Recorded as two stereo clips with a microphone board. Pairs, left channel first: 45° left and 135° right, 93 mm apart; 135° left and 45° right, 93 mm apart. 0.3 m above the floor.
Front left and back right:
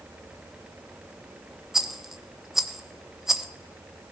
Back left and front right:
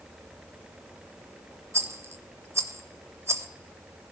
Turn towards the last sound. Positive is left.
turn(degrees=-55)